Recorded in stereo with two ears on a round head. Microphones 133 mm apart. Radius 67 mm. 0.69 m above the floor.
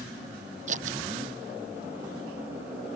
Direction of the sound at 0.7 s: 50° right (ahead or behind).